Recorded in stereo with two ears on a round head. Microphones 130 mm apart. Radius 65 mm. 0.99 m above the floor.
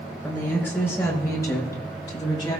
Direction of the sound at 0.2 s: 10° left (ahead or behind).